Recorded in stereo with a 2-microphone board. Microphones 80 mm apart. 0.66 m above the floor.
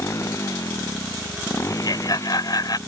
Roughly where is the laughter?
Left.